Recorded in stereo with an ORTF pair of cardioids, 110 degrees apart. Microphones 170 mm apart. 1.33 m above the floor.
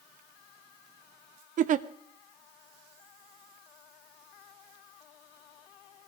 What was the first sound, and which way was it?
A giggle, 50° right.